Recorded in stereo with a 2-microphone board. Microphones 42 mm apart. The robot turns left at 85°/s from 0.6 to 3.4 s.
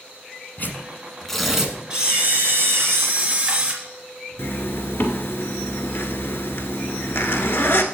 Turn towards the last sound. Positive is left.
turn(degrees=70)  # may be behind; listen again after turning